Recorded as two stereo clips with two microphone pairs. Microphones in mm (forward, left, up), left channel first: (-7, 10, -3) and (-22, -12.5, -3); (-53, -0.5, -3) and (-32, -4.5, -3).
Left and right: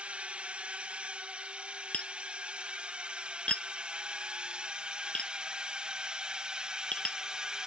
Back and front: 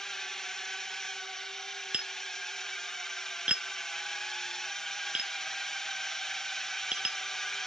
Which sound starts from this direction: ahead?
Tapping, at 1.9 s.